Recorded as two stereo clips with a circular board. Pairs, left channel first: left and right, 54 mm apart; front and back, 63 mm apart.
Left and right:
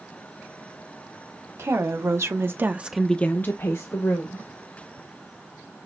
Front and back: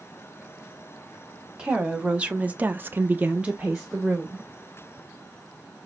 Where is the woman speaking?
105° right, 1.5 m; by 4.5 s 95° left, 1.5 m.